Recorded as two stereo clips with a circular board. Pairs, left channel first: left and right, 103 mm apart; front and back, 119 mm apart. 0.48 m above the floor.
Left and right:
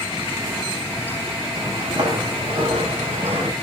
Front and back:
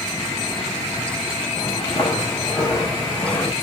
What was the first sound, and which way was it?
Footsteps, 35° right.